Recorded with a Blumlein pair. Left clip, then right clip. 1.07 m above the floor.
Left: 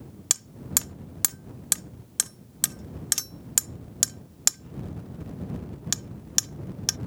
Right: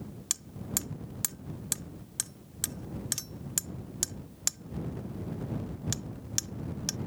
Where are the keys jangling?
I don't hear keys jangling.